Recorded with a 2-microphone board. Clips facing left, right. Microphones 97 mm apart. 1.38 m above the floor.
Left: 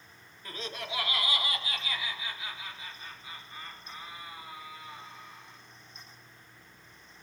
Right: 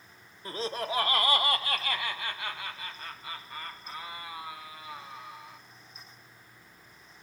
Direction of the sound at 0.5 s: 30° right (ahead or behind).